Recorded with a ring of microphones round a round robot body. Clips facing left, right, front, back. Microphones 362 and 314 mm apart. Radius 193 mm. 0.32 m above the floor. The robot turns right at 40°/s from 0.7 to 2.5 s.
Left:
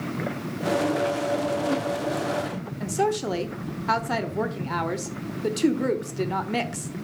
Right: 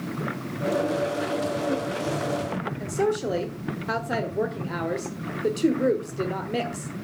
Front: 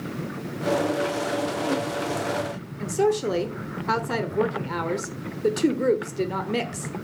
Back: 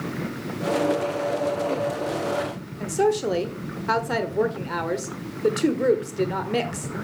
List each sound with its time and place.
2.8 s a woman speaking: 65° left, 1.3 m